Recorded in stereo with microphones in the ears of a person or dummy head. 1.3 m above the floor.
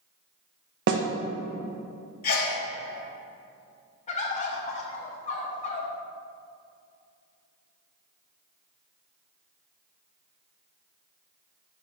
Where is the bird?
35° left (ahead or behind), 0.7 m.